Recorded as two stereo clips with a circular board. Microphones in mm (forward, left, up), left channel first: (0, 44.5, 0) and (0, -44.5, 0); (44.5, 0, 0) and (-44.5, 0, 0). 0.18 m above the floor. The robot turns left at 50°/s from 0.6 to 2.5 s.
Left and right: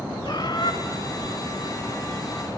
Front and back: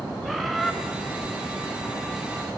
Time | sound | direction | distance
0.2 | a bird | 90° left | 2.5 m